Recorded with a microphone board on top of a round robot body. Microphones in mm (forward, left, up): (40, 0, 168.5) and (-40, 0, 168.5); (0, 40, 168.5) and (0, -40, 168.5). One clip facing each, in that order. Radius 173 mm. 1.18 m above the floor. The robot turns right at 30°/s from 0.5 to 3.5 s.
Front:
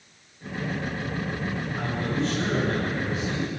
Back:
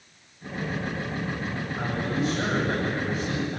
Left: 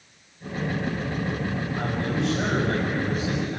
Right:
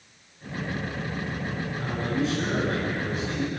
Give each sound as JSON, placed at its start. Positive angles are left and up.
{"t": 1.8, "sound": "a man speaking", "azimuth_deg": 90, "distance_m": 8.0}